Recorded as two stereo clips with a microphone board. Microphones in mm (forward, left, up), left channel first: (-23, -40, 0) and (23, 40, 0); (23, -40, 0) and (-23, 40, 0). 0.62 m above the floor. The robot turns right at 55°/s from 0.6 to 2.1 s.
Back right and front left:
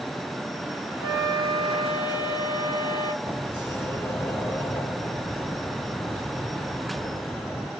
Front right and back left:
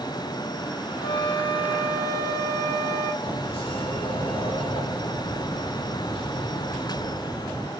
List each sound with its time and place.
1.0 s a flute: 70° right, 2.5 m; by 3.1 s 10° right, 2.5 m
3.2 s a sliding door: 55° right, 2 m